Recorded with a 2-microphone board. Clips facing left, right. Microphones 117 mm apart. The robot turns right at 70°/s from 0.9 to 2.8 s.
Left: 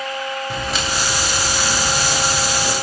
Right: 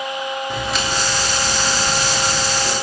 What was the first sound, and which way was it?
Footsteps, centre (ahead or behind).